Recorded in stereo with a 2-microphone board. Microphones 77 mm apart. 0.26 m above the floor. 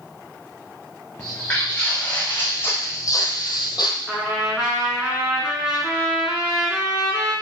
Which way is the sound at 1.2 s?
10° left (ahead or behind).